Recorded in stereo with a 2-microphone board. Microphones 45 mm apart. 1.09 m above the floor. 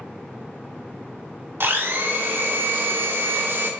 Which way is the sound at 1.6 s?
50° right (ahead or behind).